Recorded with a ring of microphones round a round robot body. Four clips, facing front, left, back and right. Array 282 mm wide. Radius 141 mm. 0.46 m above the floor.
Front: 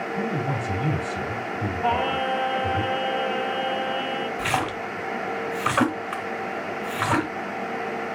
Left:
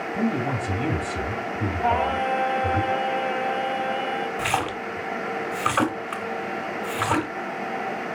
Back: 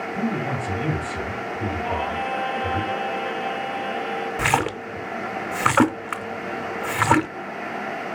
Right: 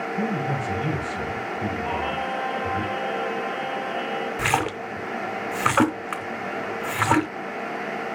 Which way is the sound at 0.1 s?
115° left.